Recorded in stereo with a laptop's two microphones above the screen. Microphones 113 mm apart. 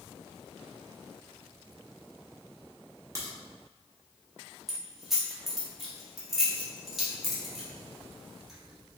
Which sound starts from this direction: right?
A crack, at 3.1 s.